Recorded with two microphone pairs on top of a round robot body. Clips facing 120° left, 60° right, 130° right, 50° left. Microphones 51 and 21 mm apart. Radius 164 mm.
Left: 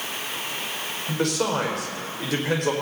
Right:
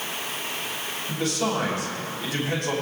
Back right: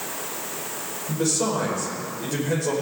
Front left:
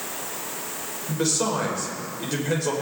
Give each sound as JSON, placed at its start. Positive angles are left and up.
{"t": 1.1, "sound": "a man speaking", "azimuth_deg": 110, "distance_m": 5.0}